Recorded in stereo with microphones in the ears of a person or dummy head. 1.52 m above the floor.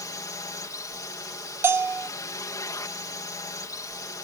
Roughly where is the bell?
Centre.